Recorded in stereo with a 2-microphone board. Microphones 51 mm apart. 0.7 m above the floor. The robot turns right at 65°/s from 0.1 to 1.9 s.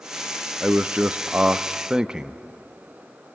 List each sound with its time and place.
0.6 s a man speaking: 25° right (ahead or behind), 0.6 m; by 2.4 s 15° right (ahead or behind), 0.6 m